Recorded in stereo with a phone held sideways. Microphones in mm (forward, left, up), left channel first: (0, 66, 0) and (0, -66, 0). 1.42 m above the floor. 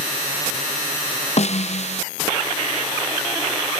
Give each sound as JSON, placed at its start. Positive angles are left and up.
{"t": 1.4, "sound": "a snare drum", "side_deg": 55, "distance_m": 0.5}